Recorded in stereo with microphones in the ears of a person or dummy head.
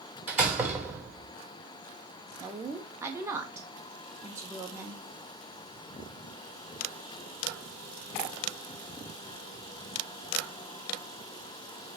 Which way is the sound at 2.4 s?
15° right (ahead or behind).